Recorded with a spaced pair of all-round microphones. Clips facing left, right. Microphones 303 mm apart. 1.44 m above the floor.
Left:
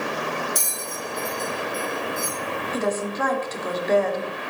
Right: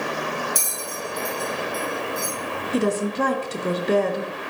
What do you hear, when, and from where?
0.6 s a bell: 10° right (ahead or behind), 2 m
2.7 s a woman speaking: 40° right (ahead or behind), 0.8 m